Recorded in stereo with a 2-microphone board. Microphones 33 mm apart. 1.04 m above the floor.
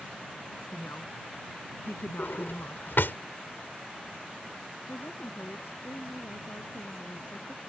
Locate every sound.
0.7 s a woman speaking: 90° left
2.2 s a drawer: 85° left
4.9 s a woman speaking: 85° left